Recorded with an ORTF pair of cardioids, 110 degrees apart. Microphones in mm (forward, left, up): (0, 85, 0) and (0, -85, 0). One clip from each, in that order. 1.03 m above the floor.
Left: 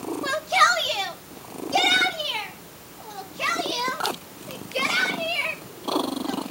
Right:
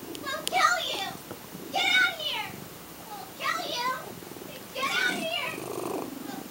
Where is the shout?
55° left, 2 m; by 6.4 s 65° left, 7 m.